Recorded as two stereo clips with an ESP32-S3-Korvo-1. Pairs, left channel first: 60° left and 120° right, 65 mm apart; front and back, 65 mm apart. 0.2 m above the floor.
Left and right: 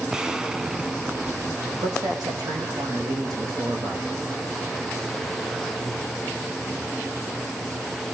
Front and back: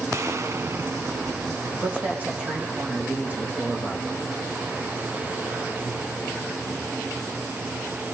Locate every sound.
0.1 s an explosion: 165° left, 1.0 m
1.7 s a man speaking: 120° right, 7 m